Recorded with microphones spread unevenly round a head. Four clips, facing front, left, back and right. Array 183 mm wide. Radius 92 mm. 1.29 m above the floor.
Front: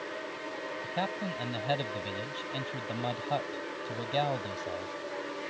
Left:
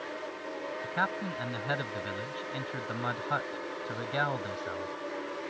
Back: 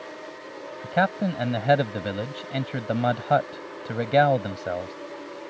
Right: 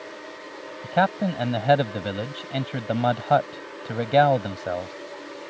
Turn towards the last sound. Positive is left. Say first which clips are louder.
# right 12 dB, back 12 dB
turn(degrees=-135)